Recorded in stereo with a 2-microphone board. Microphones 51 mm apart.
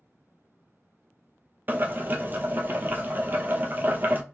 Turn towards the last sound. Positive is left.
turn(degrees=-40)  # may be behind; listen again after turning